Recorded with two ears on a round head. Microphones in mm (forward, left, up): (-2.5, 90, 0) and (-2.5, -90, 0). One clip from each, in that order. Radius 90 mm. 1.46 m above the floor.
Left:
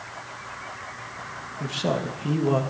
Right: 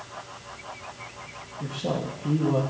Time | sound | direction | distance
1.6 | a man speaking | 80° left | 1.5 m